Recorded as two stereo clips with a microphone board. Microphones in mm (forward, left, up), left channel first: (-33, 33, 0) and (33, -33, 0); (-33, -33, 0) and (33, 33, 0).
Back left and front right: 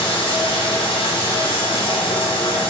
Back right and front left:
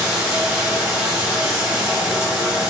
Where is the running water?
125° left, 0.8 m.